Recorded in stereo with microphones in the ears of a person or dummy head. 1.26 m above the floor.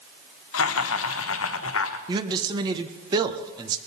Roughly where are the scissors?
No scissors in this recording.